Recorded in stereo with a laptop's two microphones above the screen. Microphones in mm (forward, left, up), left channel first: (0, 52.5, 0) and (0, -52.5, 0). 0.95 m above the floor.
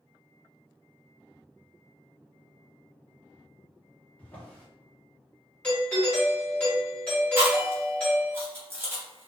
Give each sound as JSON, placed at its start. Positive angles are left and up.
{"t": 4.2, "sound": "a drawer", "side_deg": 15, "distance_m": 0.6}
{"t": 5.6, "sound": "a doorbell", "side_deg": 15, "distance_m": 1.4}
{"t": 7.4, "sound": "chewing", "side_deg": -25, "distance_m": 0.8}